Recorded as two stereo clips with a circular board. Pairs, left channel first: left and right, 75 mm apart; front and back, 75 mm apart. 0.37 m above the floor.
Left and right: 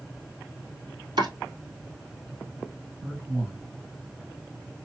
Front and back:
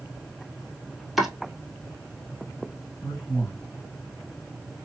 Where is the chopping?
95° right, 1.8 m.